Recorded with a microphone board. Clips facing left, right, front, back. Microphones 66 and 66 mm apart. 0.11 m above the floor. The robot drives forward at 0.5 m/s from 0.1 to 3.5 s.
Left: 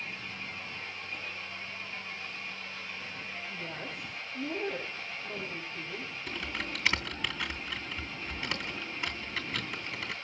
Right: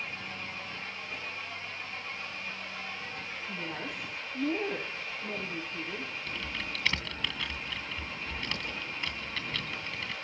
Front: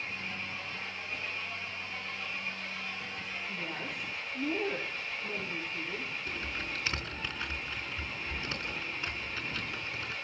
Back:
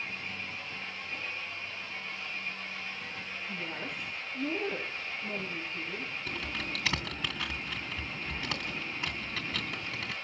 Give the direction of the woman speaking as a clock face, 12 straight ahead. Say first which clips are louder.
Right 5 dB, back 2 dB; 3 o'clock.